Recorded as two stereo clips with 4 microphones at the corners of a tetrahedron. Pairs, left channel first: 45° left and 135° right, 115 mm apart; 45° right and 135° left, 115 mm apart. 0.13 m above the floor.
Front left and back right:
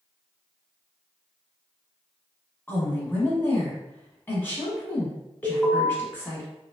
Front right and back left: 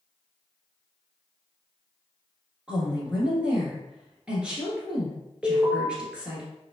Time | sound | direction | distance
2.7 | a woman speaking | 75° left | 1.1 m
5.4 | an alarm | 15° left | 1.1 m